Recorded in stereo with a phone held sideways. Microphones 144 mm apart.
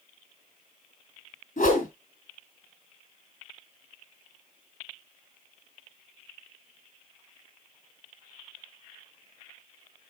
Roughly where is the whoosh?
Left.